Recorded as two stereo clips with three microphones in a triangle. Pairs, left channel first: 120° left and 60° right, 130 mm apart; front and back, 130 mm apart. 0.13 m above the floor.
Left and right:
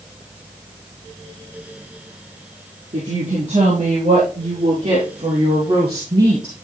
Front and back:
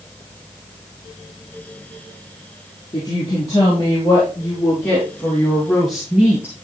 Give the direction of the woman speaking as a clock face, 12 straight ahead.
2 o'clock.